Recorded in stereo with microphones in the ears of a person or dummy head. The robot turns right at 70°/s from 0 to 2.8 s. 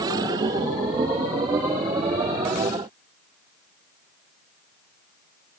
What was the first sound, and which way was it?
Only background noise.